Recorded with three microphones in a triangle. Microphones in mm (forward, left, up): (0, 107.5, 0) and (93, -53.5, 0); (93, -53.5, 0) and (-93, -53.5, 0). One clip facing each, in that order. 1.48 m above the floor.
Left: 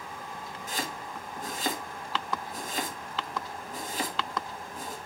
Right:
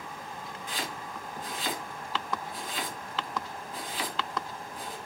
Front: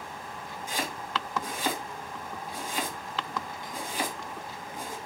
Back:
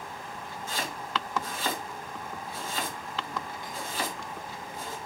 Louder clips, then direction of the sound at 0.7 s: Left 2 dB, front 1 dB; 75° left.